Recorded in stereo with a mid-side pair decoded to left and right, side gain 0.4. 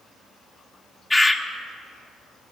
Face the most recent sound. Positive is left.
turn(degrees=10)